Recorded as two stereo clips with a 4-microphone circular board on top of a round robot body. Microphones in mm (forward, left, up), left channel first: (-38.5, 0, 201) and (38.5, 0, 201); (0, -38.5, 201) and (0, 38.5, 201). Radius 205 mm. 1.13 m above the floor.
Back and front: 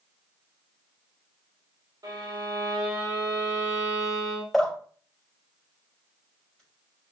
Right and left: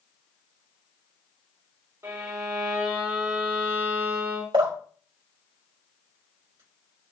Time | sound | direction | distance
2.0 | a violin | 35° left | 2 m
4.5 | dripping | 90° left | 4 m